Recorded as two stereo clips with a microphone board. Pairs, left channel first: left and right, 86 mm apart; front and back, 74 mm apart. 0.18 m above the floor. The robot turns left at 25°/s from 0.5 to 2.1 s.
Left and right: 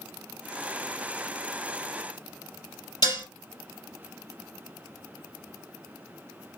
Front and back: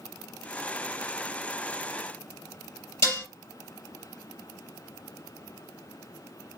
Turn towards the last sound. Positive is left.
turn(degrees=50)